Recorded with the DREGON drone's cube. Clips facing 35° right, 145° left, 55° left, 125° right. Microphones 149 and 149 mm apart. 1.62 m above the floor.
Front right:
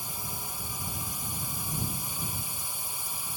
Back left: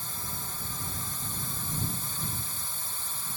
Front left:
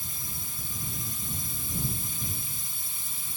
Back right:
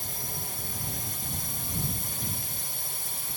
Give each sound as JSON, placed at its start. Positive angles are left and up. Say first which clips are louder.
{"t": 0.0, "sound": "a drone", "louder": "front right 1 dB, back right 5 dB", "azimuth_deg": -110}